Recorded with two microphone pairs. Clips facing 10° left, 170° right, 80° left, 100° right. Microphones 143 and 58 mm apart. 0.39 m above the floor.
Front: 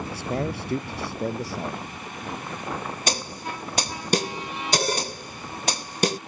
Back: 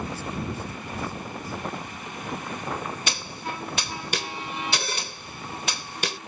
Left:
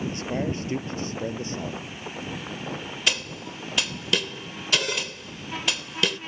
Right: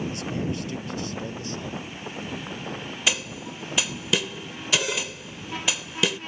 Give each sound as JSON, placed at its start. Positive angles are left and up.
{"t": 0.1, "sound": "a man speaking", "azimuth_deg": 25}
{"t": 3.1, "sound": "a snare drum", "azimuth_deg": -20}